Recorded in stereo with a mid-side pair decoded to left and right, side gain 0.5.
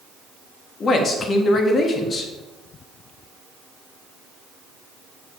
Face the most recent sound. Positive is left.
turn(degrees=50)